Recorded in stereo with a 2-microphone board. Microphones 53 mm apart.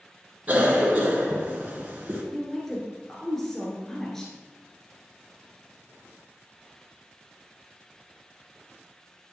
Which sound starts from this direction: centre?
A woman speaking, at 2.3 s.